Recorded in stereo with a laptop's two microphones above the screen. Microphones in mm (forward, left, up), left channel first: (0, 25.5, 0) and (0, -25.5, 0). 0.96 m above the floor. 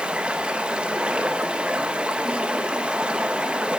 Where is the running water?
20° right (ahead or behind), 0.8 m.